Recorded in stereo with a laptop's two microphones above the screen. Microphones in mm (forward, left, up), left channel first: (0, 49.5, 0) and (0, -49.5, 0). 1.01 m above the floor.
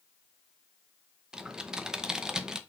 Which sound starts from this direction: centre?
Typing on a keyboard, at 1.3 s.